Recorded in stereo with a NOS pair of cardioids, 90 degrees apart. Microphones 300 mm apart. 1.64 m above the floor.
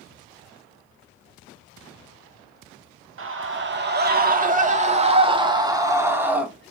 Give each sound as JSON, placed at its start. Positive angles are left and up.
{"t": 3.2, "sound": "a scream", "azimuth_deg": -45, "distance_m": 3.0}